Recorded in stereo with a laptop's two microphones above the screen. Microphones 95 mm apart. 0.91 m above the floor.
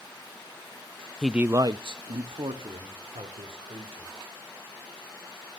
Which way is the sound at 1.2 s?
5° left (ahead or behind).